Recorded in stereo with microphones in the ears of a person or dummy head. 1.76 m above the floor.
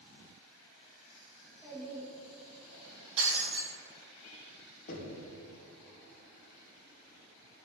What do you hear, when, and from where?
1.4 s a child speaking: 10° left (ahead or behind), 2.5 m
3.2 s breaking glass: 35° right (ahead or behind), 1.9 m
4.9 s knocking: 45° left (ahead or behind), 1.2 m